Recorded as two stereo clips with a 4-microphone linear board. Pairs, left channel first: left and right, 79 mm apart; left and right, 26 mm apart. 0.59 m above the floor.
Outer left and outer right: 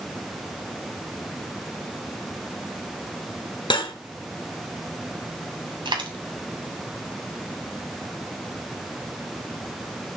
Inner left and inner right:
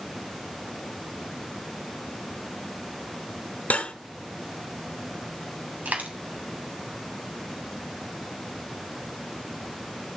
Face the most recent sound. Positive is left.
turn(degrees=-85)